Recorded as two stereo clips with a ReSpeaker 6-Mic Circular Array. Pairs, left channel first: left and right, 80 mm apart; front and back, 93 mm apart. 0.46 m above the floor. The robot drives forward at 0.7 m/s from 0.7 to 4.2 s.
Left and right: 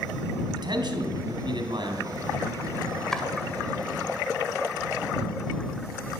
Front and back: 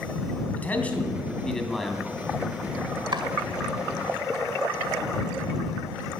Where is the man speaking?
70° right, 3 m; by 2.2 s 95° right, 2.5 m.